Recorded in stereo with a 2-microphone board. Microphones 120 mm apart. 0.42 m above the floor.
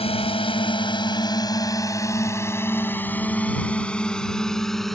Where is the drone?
55° left (ahead or behind); by 5.0 s centre (ahead or behind).